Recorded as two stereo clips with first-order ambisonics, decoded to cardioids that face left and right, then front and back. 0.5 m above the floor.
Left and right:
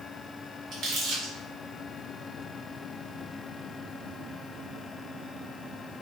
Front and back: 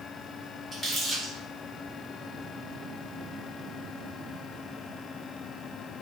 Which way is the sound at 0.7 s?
105° right.